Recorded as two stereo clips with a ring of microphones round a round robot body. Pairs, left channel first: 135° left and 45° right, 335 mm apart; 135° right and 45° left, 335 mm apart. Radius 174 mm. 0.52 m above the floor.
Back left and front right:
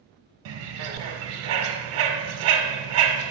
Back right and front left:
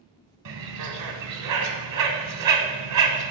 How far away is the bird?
About 1.2 m.